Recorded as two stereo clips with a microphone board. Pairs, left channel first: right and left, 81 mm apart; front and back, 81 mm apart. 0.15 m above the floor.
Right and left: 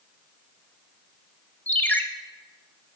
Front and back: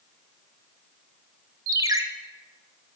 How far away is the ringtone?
About 0.6 m.